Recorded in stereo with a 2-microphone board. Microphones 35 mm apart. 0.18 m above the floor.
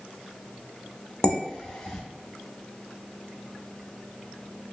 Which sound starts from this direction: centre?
Dishes clattering, at 1.2 s.